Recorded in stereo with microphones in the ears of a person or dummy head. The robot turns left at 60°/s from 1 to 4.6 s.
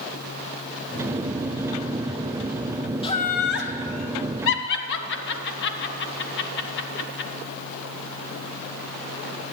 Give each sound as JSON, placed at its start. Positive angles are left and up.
{"t": 3.0, "sound": "laughter", "side_deg": 25, "distance_m": 1.4}